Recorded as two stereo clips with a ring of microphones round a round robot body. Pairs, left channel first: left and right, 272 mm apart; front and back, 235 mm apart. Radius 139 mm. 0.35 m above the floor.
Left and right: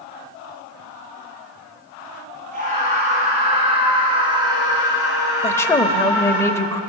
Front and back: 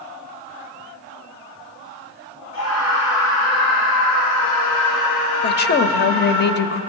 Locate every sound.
2.5 s a scream: 30° right, 4 m; by 6.4 s 5° right, 6 m
5.4 s a woman speaking: 15° left, 1.1 m